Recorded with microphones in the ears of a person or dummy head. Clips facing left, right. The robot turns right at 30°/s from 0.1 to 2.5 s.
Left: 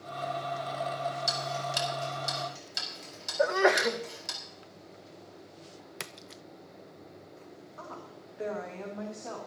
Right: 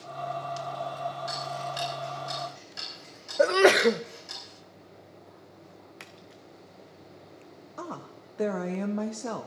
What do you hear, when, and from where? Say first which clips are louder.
1.3 s ticking: even; 65° left (ahead or behind), 4.5 m; by 4.4 s 80° left, 4.5 m
3.4 s a sneeze: right 5 dB; 35° right (ahead or behind), 0.6 m
6.0 s a splash: left 2 dB; 65° left (ahead or behind), 0.6 m
7.8 s a woman speaking: right 7 dB; 65° right (ahead or behind), 1.2 m